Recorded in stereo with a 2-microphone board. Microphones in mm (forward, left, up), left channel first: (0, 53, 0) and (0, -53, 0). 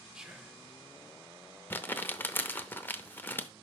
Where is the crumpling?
20° left (ahead or behind), 0.7 m.